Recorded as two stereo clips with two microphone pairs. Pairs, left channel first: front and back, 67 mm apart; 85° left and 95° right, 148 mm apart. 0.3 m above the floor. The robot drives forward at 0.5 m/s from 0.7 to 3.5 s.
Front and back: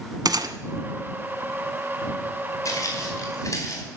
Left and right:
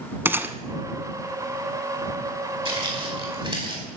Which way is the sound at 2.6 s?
40° right.